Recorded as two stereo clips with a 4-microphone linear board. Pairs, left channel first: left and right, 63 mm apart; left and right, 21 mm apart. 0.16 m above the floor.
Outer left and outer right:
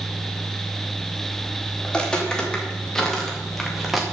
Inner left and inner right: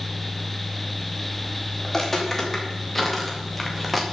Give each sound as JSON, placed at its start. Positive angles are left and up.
{"t": 1.8, "sound": "footsteps", "side_deg": 15, "distance_m": 3.0}